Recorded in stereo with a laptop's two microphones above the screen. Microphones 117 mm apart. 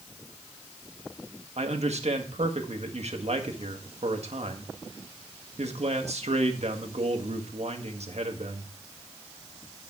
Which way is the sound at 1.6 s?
70° right (ahead or behind).